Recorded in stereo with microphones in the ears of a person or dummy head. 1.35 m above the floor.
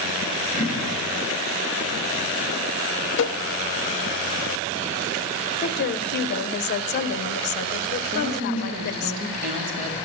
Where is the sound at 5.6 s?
55° left (ahead or behind), 0.5 m.